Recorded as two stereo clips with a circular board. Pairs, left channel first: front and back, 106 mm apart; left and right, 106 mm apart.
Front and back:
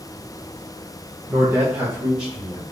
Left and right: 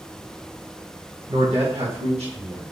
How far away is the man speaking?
About 1.2 m.